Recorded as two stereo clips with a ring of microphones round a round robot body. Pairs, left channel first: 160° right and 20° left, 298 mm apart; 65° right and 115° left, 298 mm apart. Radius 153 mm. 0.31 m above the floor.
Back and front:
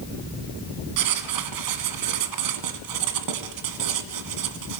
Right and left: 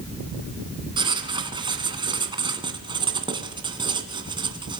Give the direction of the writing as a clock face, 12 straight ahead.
11 o'clock.